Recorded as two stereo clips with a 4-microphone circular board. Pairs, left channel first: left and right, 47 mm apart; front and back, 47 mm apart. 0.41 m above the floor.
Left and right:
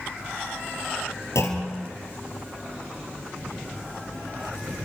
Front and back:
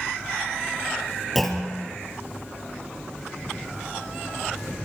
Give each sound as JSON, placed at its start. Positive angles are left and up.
{"t": 1.4, "sound": "a clunk", "azimuth_deg": 85, "distance_m": 4.0}